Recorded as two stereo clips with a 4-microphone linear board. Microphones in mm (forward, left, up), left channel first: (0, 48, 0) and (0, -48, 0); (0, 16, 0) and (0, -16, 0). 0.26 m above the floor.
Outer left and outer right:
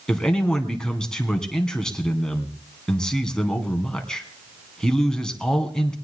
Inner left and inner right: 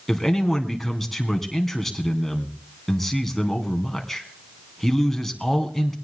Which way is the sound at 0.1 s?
10° left (ahead or behind).